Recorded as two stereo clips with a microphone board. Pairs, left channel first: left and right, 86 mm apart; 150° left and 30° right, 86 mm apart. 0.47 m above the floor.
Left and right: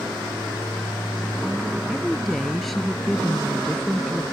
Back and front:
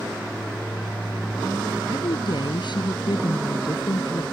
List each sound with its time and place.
1.9 s a woman speaking: straight behind